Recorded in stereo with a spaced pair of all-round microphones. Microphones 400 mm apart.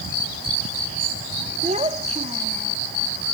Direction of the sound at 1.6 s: 15° right (ahead or behind).